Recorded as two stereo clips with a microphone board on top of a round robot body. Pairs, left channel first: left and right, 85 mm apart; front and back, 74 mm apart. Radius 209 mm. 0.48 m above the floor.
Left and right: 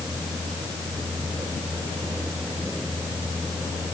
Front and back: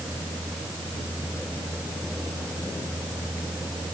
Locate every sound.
Only background noise.